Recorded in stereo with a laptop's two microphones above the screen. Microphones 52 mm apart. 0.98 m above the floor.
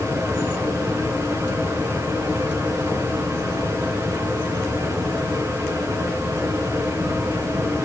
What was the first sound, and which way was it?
A fan, 80° right.